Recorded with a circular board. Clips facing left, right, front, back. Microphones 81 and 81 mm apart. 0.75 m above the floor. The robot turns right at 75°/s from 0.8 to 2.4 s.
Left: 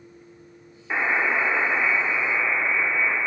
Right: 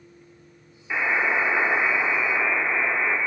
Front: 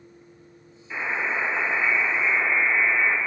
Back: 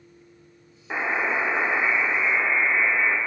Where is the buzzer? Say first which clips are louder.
Even, back 2 dB; 160° left, 1.5 m; by 3.2 s 90° right, 1.5 m.